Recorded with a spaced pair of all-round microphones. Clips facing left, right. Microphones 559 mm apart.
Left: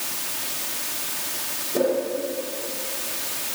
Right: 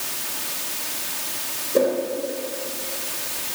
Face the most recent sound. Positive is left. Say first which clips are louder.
# right 2 dB
turn(degrees=10)  # may be behind; listen again after turning